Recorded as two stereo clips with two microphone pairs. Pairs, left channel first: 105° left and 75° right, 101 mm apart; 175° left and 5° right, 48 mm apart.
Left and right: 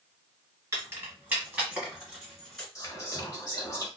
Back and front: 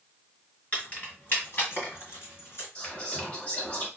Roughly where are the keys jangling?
Behind right.